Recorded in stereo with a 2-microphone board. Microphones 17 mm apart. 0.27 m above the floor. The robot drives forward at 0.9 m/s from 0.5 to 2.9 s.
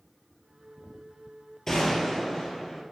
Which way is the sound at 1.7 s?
25° left (ahead or behind).